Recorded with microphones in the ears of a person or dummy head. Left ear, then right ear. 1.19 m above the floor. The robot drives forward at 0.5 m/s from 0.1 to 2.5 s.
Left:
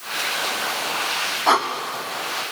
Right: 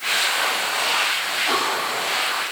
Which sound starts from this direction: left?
Breathing, at 1.5 s.